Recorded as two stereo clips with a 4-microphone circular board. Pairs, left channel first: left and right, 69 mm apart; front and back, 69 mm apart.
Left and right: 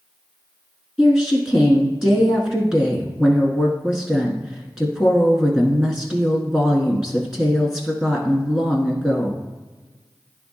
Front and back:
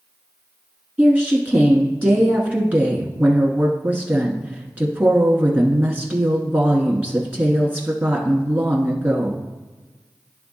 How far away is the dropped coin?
I don't hear a dropped coin.